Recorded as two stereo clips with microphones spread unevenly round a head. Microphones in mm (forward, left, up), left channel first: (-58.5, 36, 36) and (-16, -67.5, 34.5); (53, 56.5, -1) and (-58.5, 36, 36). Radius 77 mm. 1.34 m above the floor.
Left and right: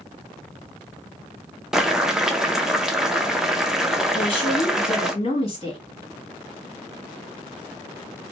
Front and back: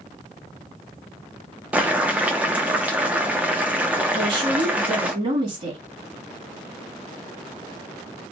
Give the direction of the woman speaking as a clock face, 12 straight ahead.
7 o'clock.